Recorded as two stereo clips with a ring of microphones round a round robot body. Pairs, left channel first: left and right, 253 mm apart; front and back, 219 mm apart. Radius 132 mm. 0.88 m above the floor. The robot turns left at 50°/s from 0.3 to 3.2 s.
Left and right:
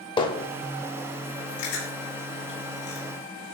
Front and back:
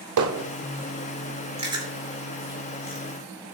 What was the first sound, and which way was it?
Hammering, 165° left.